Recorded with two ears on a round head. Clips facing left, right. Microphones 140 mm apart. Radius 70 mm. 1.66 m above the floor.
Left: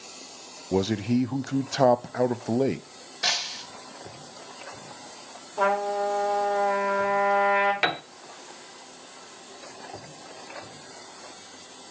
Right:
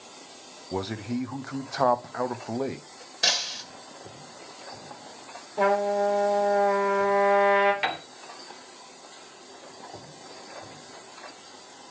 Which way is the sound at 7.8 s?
60° left (ahead or behind).